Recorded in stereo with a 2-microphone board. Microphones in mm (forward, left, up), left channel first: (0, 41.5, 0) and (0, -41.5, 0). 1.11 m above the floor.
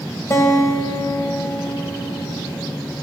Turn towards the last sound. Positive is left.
turn(degrees=40)  # may be behind; listen again after turning